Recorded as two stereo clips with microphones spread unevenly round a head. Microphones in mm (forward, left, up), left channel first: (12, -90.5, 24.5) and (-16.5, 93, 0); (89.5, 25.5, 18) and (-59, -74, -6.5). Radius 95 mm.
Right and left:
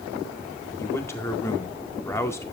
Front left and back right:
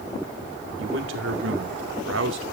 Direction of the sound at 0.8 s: 160° right.